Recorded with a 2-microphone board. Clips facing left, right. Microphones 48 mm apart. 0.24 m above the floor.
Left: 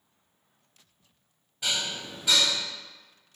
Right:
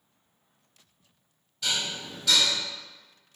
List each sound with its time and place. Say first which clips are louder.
1.6 s dishes clattering: even; 20° left (ahead or behind), 0.8 m